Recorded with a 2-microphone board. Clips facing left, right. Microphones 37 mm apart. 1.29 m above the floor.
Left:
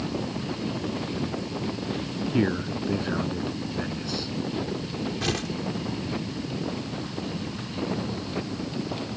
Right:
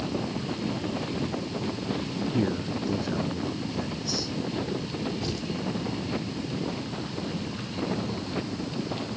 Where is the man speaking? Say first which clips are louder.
Left 4 dB; 35° left (ahead or behind).